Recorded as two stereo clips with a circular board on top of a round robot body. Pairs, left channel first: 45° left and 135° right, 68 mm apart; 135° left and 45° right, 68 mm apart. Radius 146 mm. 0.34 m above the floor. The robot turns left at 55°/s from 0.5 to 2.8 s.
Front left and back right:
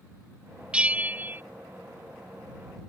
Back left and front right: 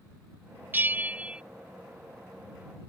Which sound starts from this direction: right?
A bell, at 0.7 s.